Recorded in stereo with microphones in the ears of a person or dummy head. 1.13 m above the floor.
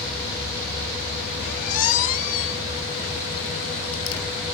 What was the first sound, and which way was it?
A squeak, 45° left (ahead or behind).